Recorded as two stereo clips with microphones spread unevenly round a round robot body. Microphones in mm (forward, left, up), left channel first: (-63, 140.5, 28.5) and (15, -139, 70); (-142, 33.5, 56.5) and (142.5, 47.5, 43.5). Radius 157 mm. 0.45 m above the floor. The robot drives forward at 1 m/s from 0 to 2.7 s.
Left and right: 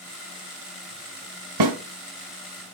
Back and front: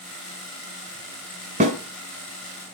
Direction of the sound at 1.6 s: 65° right.